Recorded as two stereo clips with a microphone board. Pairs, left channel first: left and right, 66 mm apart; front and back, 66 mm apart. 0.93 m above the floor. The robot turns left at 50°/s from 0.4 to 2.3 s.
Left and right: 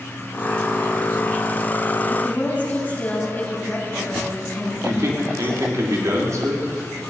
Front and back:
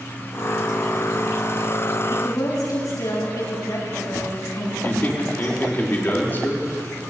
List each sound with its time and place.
2.1 s a woman speaking: 35° left, 6 m; by 5.8 s 25° left, 6 m
4.8 s a man speaking: 55° right, 2.5 m